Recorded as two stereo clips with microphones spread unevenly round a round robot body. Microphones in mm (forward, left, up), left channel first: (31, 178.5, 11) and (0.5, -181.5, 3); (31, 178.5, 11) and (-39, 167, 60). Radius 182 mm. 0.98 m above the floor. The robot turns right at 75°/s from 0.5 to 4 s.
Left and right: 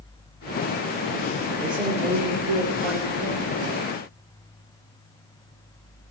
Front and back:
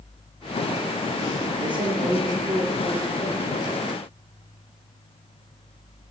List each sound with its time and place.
1.6 s a man speaking: 170° left, 3 m; by 3.5 s 50° right, 3 m